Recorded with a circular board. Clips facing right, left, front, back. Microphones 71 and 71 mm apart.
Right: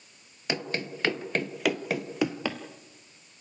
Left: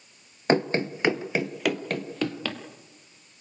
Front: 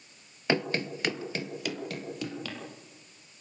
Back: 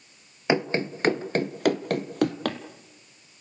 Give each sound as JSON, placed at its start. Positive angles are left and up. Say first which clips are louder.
{"t": 0.5, "sound": "running footsteps", "louder": "left 9 dB, back 4 dB", "azimuth_deg": 120, "distance_m": 1.0}